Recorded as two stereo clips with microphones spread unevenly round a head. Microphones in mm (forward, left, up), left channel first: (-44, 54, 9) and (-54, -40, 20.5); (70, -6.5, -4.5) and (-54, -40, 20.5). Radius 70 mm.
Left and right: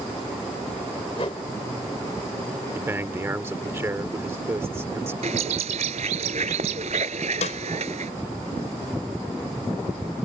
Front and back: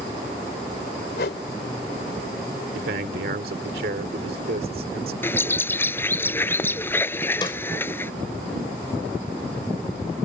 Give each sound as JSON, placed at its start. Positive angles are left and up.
{"t": 1.1, "sound": "a whoosh", "azimuth_deg": 25}
{"t": 2.8, "sound": "a man speaking", "azimuth_deg": -160}
{"t": 5.2, "sound": "a bird", "azimuth_deg": -60}
{"t": 7.4, "sound": "a snare drum", "azimuth_deg": 80}